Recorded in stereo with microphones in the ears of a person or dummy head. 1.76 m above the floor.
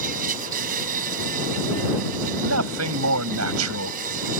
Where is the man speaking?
85° right.